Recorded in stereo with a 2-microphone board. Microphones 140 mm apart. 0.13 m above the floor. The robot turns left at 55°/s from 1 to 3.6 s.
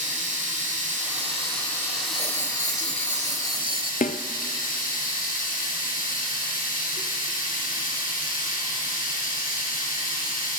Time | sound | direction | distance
0.0 | running water | 120° right | 4.5 m
2.1 | writing | 55° right | 0.5 m
4.0 | a snare drum | 70° left (ahead or behind) | 0.7 m